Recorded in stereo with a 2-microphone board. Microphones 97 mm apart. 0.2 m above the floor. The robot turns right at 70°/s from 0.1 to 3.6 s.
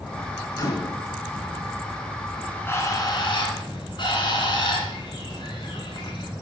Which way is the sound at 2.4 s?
5° left (ahead or behind).